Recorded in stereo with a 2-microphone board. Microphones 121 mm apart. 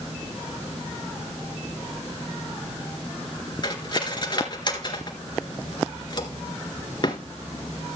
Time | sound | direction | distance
3.6 | cutlery clinking | 40° left (ahead or behind) | 1.7 m